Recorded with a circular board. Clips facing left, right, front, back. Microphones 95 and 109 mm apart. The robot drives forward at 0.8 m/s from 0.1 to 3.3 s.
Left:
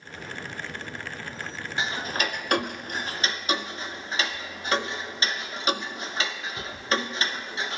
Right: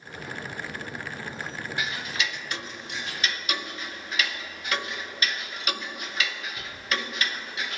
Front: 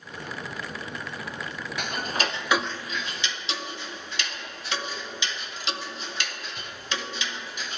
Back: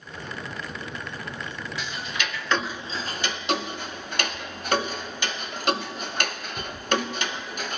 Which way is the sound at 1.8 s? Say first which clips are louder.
Left 4 dB, front 5 dB; 30° left.